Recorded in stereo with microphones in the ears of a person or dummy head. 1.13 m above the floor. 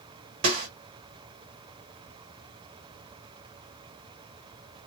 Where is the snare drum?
40° right (ahead or behind), 1.7 m.